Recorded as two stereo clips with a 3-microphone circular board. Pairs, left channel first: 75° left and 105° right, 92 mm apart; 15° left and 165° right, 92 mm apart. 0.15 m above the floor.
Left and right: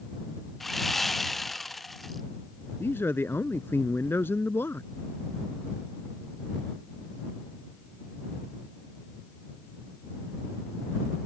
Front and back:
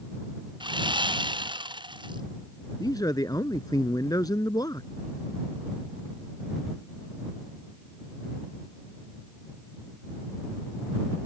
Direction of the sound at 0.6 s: 165° left.